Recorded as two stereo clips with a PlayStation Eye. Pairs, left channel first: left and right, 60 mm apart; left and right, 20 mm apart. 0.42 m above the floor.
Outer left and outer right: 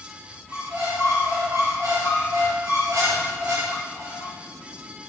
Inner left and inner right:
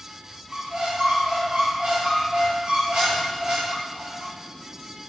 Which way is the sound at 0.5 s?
60° right (ahead or behind).